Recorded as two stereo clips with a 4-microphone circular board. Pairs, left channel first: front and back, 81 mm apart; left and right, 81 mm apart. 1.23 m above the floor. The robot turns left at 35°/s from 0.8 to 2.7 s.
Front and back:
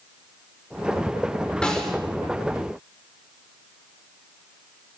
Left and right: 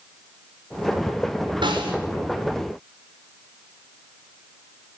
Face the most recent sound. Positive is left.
turn(degrees=-115)